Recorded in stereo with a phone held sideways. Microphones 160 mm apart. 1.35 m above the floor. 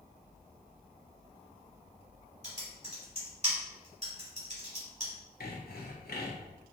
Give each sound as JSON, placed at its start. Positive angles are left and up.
{"t": 2.4, "sound": "typing on a keyboard", "side_deg": -40, "distance_m": 2.0}
{"t": 5.4, "sound": "sawing", "side_deg": 75, "distance_m": 1.0}